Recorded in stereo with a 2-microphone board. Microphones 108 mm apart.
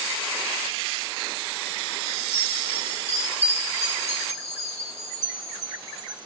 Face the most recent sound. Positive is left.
turn(degrees=75)  # may be behind; listen again after turning